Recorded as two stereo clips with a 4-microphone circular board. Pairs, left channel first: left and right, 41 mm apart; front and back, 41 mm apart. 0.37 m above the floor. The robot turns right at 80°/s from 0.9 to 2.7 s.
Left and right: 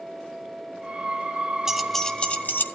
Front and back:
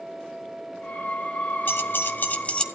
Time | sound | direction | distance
1.7 | keys jangling | 15° right | 1.2 m